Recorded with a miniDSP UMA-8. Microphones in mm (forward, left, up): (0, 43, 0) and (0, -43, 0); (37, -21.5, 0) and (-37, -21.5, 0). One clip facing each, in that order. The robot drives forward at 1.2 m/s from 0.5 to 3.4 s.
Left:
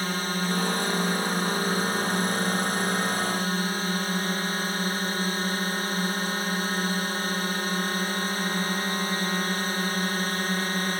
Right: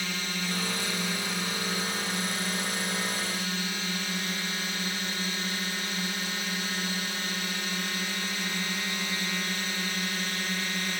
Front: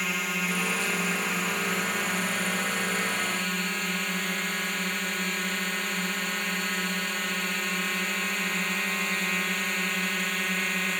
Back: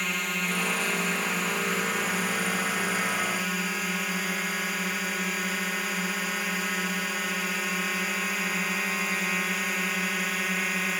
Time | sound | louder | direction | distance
0.0 | a drone | left 6 dB, even | 90° left | ?